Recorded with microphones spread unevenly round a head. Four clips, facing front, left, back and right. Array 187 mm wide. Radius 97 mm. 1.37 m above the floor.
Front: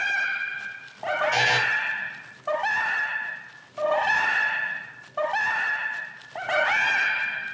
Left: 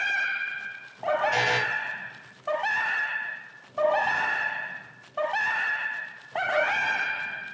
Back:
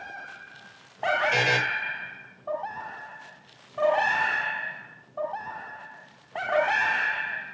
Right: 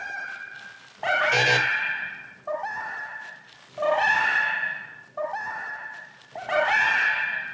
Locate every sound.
1.3 s a buzzer: 120° right, 5.5 m